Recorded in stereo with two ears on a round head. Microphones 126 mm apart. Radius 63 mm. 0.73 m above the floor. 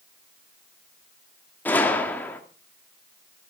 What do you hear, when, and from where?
1.6 s a gunshot: 15° left (ahead or behind), 1.7 m